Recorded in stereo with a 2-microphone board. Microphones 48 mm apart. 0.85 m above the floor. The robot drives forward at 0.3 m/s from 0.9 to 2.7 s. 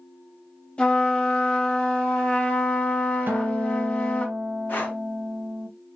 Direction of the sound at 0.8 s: 25° left (ahead or behind).